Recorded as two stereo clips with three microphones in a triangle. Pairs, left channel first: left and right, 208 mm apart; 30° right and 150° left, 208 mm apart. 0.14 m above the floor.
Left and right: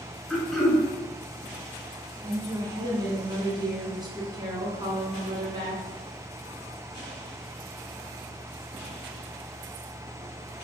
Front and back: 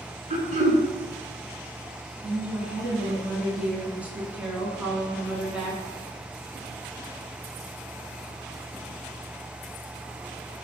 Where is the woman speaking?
130° right, 1.3 m.